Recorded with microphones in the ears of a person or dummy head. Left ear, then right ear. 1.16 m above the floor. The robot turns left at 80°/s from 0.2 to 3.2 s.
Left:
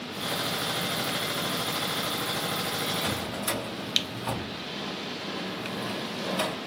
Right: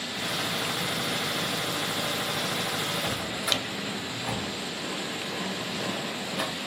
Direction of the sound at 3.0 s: 10° left (ahead or behind).